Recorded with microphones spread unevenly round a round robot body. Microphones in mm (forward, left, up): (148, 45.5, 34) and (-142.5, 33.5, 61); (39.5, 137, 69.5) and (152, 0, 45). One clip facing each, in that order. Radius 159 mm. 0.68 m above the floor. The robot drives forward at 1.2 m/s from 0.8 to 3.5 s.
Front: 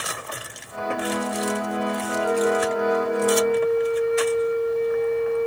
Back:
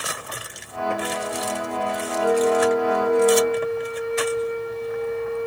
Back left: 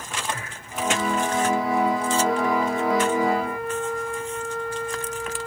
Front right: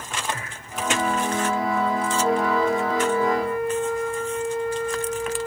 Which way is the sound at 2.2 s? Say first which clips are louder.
Back 3 dB, front right 4 dB; 110° right.